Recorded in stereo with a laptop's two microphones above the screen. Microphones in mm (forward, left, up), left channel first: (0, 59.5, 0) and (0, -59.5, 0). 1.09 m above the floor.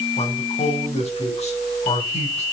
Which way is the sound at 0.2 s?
70° left (ahead or behind).